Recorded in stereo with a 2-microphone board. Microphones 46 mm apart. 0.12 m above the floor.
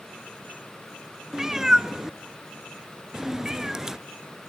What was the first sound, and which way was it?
A cat meowing, 15° right (ahead or behind).